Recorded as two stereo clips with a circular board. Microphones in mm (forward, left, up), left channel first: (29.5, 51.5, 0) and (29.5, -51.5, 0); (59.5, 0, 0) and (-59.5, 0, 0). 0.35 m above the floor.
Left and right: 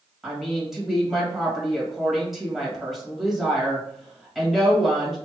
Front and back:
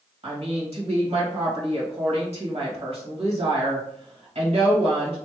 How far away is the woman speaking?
About 2.0 m.